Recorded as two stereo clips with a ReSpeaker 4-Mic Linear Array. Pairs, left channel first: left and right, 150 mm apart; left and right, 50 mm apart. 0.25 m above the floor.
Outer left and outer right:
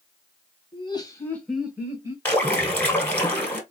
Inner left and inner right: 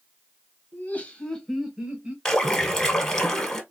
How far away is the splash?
About 1.5 m.